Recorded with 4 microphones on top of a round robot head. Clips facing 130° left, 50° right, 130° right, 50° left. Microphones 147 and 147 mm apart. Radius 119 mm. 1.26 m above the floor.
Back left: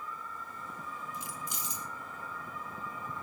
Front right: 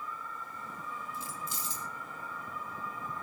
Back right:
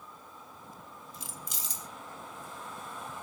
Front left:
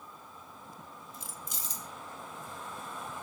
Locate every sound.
1.1 s keys jangling: 155° right, 0.5 m